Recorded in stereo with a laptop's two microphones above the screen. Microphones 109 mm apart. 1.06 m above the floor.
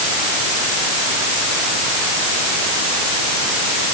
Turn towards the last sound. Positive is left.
No sound to turn to.